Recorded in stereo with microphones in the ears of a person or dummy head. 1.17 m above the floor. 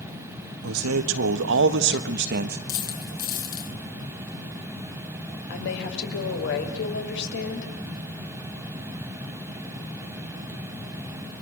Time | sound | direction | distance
0.6 | a man speaking | 75° right (ahead or behind) | 2 m
2.7 | a dropped coin | 50° left (ahead or behind) | 5 m
5.5 | a woman speaking | 65° left (ahead or behind) | 6 m